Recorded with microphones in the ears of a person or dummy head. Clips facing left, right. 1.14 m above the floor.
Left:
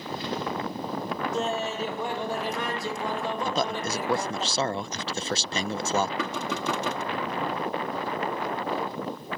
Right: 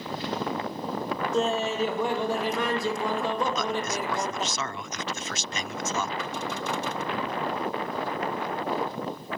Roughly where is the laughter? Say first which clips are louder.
Right 5 dB; right.